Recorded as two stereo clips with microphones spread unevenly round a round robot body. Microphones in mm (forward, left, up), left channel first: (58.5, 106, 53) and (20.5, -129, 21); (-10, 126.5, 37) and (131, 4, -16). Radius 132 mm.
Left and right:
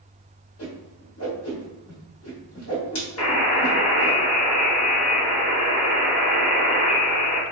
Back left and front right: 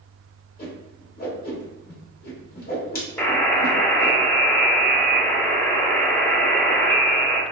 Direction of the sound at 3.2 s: 55° left.